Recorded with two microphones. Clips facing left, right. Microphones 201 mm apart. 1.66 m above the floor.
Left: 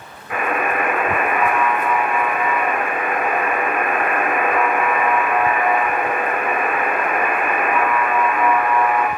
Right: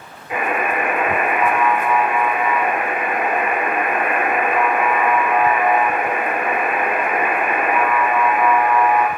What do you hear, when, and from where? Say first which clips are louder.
0.3 s a buzzer: even; 20° right (ahead or behind), 6.5 m